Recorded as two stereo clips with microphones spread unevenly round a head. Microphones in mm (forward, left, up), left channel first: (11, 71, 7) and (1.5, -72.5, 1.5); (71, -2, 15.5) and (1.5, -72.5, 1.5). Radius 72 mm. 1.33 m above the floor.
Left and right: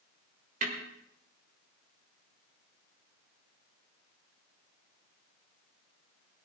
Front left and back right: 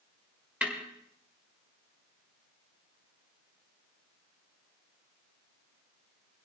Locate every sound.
0.6 s a snare drum: 55° right, 3.5 m